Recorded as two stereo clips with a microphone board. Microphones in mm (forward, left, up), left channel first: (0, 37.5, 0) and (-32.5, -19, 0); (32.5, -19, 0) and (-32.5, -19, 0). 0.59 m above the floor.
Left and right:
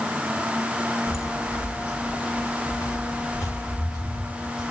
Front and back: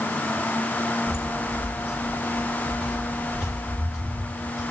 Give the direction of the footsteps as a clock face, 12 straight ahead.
9 o'clock.